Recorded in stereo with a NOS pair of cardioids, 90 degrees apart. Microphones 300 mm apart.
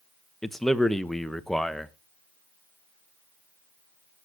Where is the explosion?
I don't hear an explosion.